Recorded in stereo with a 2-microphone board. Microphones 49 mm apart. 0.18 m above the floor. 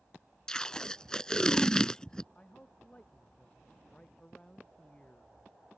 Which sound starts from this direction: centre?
Tape being pulled, at 0.5 s.